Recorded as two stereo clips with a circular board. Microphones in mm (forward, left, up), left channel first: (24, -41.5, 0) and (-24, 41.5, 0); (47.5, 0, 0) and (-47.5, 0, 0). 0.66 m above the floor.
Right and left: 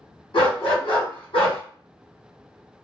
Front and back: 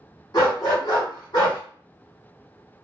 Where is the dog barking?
45° right, 1.6 m.